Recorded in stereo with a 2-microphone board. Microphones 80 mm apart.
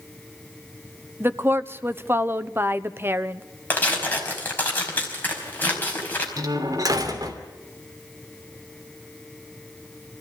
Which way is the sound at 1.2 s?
30° right (ahead or behind).